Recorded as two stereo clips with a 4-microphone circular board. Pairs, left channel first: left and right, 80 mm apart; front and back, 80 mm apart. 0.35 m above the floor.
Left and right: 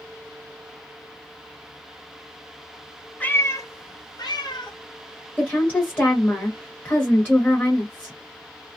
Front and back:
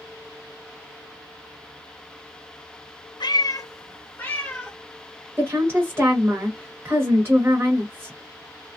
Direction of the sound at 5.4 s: 145° left.